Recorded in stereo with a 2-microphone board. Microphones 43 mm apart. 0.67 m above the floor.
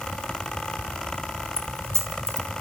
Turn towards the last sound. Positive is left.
turn(degrees=-70)  # may be behind; listen again after turning